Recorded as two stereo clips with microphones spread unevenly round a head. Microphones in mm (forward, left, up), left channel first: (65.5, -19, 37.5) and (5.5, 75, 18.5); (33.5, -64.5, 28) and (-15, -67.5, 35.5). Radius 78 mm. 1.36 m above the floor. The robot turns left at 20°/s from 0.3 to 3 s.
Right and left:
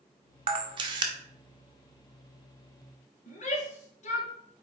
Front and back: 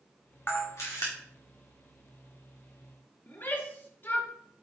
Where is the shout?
40° right, 1.9 m.